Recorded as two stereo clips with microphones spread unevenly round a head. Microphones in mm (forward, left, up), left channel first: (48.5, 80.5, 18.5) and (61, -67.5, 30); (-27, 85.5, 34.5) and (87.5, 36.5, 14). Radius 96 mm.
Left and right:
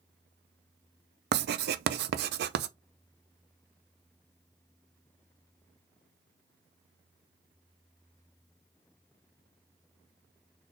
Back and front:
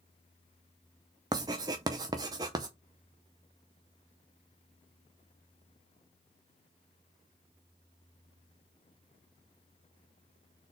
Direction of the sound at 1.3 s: 85° right.